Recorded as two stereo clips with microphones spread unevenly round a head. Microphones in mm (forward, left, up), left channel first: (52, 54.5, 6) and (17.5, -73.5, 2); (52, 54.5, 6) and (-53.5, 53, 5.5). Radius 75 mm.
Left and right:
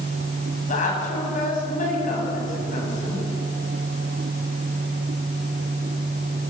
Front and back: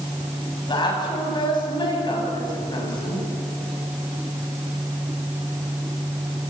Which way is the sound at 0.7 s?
45° left.